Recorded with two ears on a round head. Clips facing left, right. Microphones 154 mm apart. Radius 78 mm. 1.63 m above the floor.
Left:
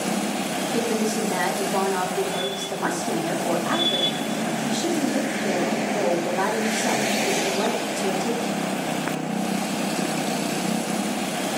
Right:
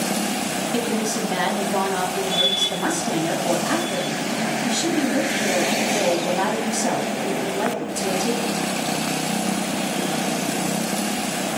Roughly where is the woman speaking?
Right.